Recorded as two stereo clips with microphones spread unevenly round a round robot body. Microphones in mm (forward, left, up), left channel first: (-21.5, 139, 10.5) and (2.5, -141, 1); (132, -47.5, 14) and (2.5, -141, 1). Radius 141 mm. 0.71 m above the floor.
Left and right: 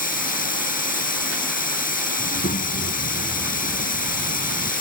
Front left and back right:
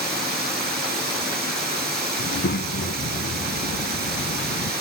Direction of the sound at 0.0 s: 155° left.